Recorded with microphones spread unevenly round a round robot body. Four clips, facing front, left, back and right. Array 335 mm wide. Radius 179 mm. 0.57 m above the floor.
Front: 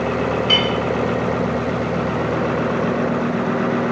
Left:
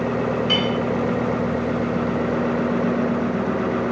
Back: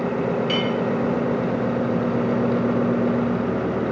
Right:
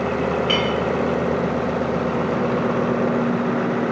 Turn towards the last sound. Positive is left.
turn(degrees=-70)